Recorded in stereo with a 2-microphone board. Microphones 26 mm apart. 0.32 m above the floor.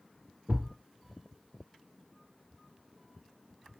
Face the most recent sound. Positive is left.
turn(degrees=-70)  # may be behind; listen again after turning